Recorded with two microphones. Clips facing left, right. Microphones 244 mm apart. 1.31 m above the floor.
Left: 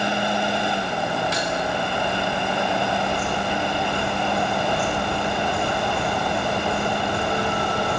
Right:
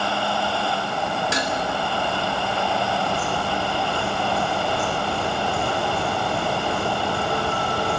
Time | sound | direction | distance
1.3 | dishes clattering | 80° right | 3 m